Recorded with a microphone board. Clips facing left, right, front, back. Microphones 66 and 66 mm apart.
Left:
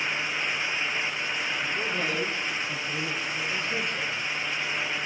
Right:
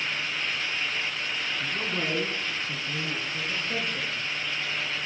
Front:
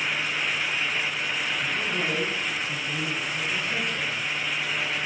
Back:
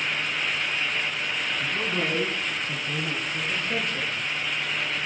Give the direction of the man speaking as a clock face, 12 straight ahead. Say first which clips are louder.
Even, back 2 dB; 5 o'clock.